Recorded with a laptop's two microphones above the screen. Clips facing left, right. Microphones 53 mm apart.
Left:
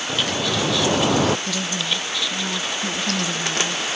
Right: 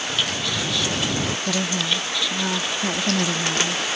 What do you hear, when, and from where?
0.1 s dripping: 75° left (ahead or behind)
1.5 s a woman speaking: 30° right (ahead or behind)